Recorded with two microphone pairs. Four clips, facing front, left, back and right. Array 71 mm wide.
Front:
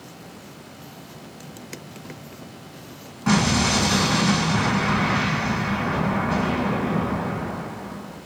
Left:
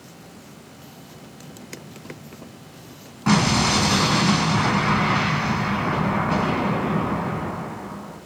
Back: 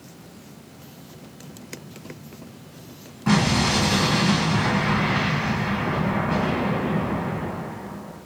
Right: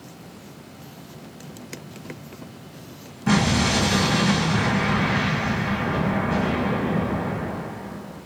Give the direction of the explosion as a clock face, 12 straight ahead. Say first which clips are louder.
Left 1 dB, even; 10 o'clock.